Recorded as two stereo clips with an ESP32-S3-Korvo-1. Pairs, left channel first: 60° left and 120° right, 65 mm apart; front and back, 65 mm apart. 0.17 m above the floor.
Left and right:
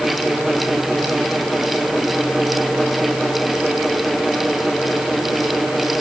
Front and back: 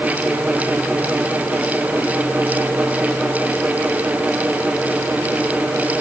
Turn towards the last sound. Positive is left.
No sound to turn to.